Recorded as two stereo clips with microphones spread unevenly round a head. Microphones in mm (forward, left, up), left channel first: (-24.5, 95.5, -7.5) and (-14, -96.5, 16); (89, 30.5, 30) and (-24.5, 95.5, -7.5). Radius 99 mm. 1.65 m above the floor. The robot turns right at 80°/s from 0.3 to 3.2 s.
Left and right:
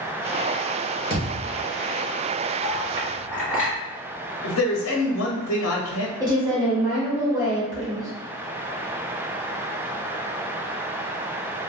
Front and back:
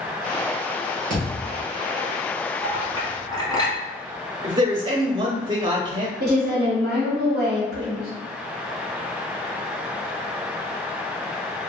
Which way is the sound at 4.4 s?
95° left.